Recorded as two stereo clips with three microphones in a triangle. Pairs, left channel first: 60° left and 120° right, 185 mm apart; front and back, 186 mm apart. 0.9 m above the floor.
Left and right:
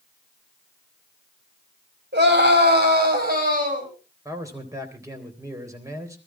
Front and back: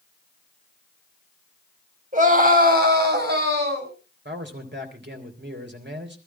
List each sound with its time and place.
2.1 s a scream: 135° right, 4.5 m; by 3.9 s 165° right, 6 m
4.2 s a man speaking: 170° left, 3.5 m